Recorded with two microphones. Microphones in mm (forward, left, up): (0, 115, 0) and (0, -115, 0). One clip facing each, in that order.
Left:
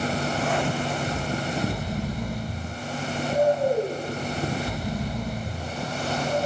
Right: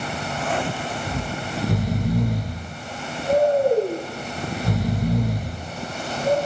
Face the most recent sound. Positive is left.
turn(degrees=-80)